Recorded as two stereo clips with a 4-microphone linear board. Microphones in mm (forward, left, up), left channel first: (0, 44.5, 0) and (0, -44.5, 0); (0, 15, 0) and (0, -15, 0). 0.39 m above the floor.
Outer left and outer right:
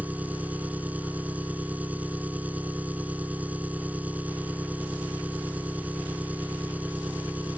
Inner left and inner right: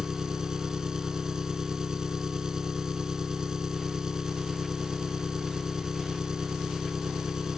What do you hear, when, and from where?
0.0 s an engine running: 15° right (ahead or behind)